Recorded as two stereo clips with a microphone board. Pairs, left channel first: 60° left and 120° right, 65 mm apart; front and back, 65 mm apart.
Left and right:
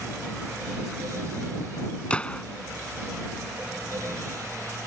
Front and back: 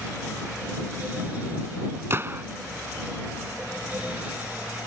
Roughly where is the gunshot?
Behind left.